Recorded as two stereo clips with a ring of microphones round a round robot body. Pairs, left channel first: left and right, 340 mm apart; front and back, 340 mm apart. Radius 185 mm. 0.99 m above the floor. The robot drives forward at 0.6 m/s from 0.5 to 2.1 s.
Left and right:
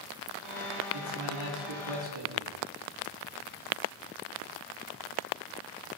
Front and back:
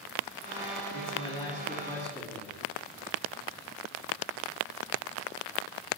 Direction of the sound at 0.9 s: 60° right.